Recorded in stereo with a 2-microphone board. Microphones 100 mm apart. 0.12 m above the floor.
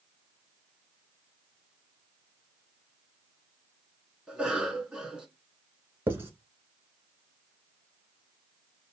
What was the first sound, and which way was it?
A cough, 10° right (ahead or behind).